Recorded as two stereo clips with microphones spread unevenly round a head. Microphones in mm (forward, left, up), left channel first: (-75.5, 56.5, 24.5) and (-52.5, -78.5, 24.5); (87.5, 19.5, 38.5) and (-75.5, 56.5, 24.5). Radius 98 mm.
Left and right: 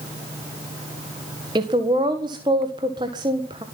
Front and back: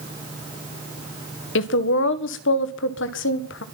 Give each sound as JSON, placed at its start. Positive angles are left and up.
{"t": 1.6, "sound": "a woman speaking", "azimuth_deg": -10, "distance_m": 1.6}